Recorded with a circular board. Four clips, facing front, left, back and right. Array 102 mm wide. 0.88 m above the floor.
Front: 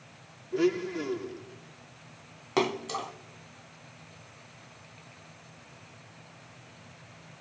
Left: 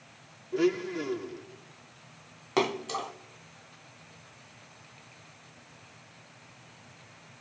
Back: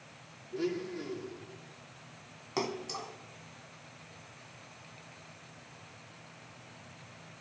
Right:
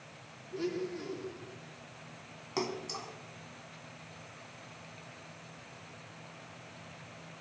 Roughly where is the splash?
Ahead left.